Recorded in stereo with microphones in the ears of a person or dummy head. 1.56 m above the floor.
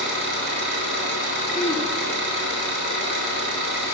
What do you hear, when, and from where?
0.0 s an engine running: 60° right (ahead or behind), 6.5 m
1.5 s throat clearing: 5° right (ahead or behind), 3 m